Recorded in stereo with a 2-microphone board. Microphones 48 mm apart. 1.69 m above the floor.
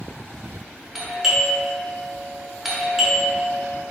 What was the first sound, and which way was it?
A doorbell, 5° right (ahead or behind).